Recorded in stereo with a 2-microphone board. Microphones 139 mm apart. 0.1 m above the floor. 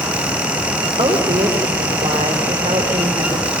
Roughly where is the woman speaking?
Right.